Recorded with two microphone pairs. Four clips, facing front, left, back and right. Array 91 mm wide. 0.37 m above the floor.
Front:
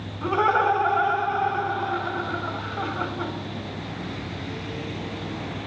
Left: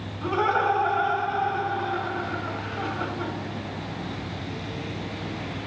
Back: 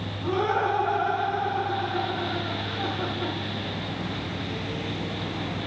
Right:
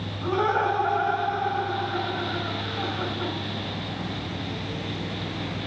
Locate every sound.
0.2 s laughter: 5° left, 4 m